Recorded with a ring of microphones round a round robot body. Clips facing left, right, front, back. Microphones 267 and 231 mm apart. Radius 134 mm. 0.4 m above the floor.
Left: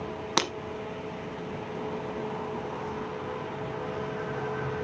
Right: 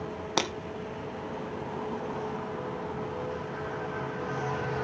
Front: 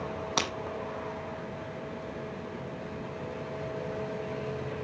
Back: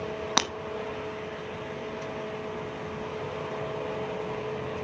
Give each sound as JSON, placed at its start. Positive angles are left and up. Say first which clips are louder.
{"t": 0.4, "sound": "breaking glass", "louder": "even, even", "azimuth_deg": 160, "distance_m": 1.2}